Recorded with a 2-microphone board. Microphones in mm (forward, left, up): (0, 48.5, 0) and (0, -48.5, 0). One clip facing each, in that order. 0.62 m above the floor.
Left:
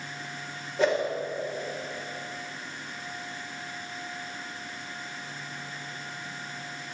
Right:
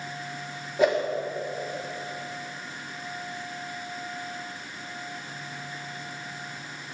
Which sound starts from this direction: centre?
A whoosh, at 0.8 s.